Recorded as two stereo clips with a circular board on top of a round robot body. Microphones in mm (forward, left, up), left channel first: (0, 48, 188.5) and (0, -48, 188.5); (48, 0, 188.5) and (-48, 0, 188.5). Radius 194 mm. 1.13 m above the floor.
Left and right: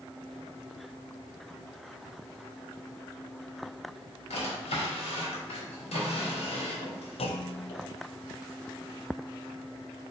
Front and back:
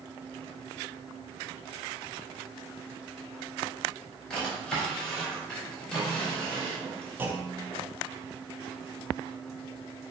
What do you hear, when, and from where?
4.3 s a drawer: 80° left, 4 m
7.2 s a clunk: 110° left, 1.0 m